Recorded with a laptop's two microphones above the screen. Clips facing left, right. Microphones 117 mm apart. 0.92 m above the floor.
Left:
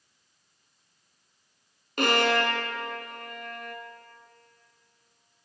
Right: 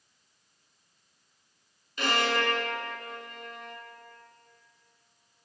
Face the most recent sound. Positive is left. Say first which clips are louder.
# left 4 dB
turn(degrees=55)  # may be behind; listen again after turning